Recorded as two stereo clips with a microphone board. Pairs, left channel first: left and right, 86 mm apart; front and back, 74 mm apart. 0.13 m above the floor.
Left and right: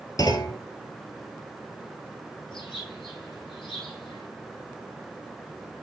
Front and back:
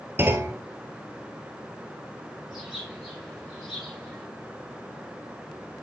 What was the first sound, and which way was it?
A clunk, 125° left.